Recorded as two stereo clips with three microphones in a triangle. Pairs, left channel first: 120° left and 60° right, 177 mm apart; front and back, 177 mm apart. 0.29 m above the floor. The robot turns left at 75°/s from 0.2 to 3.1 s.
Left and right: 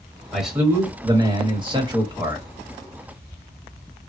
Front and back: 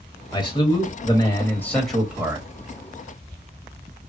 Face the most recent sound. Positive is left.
turn(degrees=-175)